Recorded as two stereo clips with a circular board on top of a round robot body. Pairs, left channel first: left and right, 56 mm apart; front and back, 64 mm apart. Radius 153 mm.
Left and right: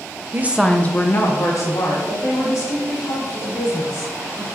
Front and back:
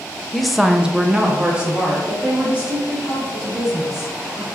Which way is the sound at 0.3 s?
85° right.